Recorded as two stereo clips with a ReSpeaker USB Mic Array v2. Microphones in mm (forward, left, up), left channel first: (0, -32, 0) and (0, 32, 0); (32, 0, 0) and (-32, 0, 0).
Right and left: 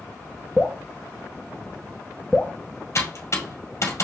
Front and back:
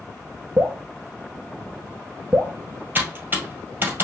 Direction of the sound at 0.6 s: 170° left.